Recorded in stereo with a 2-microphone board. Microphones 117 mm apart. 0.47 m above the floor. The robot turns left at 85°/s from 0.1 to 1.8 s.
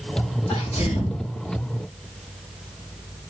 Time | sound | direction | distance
0.5 | a sneeze | 140° left | 3 m